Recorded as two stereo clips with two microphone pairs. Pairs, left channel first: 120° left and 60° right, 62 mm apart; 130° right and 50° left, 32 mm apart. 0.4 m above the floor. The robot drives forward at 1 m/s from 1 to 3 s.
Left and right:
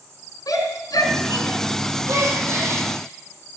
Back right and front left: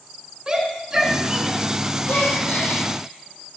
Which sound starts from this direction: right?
A gasp, at 2.1 s.